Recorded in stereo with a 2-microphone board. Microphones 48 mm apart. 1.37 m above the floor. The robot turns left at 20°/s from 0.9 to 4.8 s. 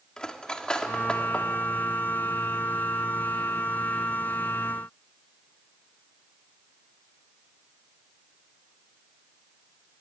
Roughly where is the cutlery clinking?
Centre.